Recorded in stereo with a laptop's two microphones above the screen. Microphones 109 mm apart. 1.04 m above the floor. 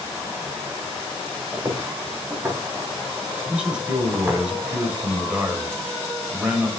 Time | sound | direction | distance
1.5 | footsteps | 20° right (ahead or behind) | 7 m
3.5 | a man speaking | 10° right (ahead or behind) | 5 m